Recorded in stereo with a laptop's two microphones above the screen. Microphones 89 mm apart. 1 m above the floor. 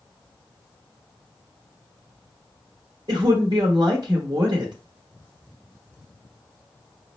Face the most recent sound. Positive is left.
turn(degrees=-50)  # may be behind; listen again after turning